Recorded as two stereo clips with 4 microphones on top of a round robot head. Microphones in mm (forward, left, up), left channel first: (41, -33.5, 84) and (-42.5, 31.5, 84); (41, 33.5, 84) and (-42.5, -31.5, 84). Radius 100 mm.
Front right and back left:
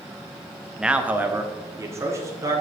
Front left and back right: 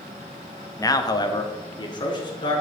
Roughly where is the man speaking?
Ahead left.